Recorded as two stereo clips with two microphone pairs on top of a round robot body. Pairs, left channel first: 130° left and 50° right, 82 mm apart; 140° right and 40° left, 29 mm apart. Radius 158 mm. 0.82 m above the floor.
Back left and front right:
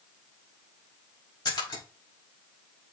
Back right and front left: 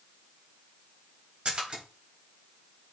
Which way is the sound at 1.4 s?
100° left.